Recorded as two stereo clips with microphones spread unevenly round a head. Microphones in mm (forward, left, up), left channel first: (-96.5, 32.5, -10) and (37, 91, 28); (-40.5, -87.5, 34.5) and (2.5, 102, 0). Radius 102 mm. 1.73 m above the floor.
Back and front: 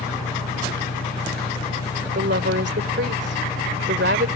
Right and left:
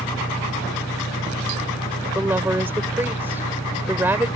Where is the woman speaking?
5° right.